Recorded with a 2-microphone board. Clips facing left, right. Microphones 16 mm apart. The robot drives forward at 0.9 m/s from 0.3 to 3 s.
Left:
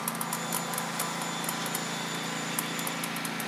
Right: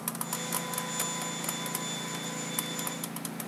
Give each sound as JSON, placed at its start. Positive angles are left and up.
{"t": 0.0, "sound": "a lawn mower", "side_deg": 55}